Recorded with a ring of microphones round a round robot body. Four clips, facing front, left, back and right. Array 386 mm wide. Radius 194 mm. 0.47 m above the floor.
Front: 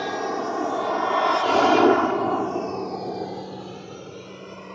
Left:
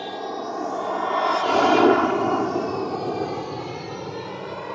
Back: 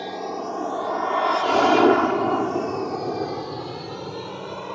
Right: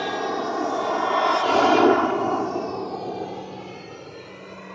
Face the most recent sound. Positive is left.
turn(degrees=130)